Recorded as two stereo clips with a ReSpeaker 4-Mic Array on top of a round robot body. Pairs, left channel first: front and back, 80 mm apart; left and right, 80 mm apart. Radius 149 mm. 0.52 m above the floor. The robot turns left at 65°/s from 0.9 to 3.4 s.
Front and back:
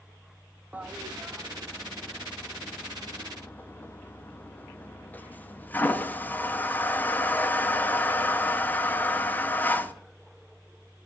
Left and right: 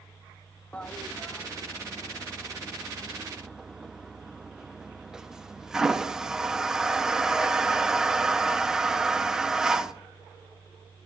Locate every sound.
0.7 s a toilet flushing: 140° left, 0.9 m; by 9.9 s 20° right, 0.9 m